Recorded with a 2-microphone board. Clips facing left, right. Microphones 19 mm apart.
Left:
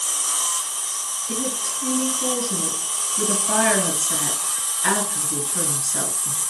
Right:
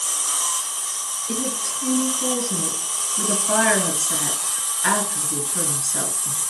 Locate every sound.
1.3 s a woman speaking: 20° right (ahead or behind), 1.9 m